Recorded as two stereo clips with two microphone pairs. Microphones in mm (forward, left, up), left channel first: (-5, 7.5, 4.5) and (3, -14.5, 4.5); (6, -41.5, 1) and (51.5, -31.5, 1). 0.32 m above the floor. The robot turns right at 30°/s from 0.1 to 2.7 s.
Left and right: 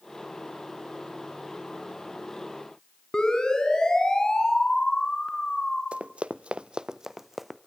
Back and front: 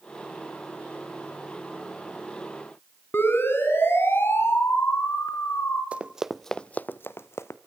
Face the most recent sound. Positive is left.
turn(degrees=-160)